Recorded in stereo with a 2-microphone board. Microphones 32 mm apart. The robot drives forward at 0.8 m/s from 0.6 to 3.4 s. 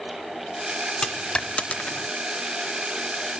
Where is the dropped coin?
25° left (ahead or behind), 1.1 m; by 2.1 s 65° left (ahead or behind), 0.5 m.